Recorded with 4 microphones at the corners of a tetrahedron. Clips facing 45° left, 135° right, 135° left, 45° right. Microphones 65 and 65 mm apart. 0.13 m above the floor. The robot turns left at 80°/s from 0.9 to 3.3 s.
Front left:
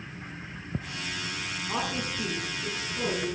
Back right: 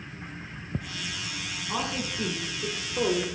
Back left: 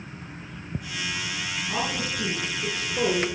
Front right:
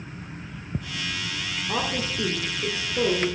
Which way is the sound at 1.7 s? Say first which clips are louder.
Back right 1 dB, front right 2 dB; 25° right.